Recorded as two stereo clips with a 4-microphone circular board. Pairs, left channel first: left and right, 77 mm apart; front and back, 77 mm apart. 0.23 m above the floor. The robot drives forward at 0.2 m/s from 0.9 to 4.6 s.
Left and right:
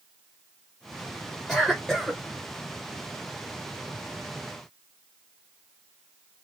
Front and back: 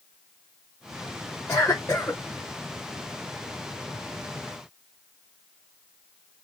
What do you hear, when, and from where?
1.5 s a cough: 10° left, 1.5 m